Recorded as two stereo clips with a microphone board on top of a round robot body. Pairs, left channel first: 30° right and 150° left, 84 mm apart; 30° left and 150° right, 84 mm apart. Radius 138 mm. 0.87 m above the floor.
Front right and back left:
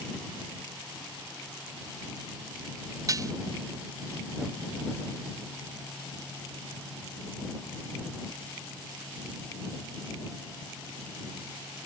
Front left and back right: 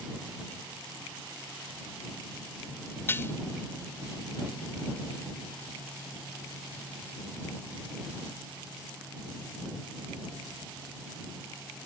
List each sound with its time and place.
3.1 s dishes clattering: 95° left